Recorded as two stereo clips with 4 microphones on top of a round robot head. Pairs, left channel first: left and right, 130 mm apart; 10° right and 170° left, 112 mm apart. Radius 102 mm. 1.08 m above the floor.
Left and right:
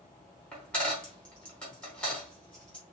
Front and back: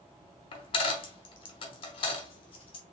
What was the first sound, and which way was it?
A dropped coin, 5° left.